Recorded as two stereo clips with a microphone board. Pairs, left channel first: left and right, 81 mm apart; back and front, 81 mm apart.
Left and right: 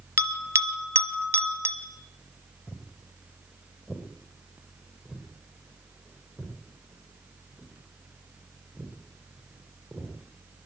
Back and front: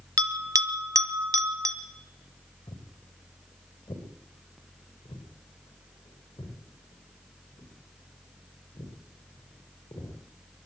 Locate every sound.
0.2 s a bell: 35° right, 1.2 m
2.7 s footsteps: 170° left, 5.5 m; by 10.7 s 170° right, 12 m